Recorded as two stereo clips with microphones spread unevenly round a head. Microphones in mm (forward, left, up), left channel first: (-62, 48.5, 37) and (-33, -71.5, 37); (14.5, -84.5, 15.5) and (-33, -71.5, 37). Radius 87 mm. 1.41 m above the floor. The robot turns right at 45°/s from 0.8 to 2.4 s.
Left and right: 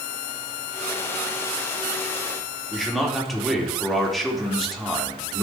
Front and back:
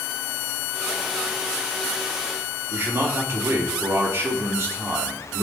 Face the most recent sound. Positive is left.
turn(degrees=-165)